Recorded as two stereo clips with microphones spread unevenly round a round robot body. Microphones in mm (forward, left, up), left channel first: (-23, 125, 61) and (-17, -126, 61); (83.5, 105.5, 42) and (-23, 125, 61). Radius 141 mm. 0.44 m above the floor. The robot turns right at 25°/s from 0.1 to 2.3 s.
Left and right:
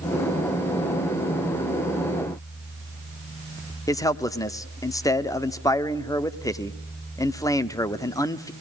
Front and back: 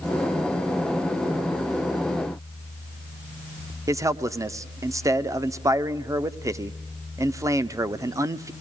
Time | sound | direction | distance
3.9 | a man speaking | 145° left | 0.8 m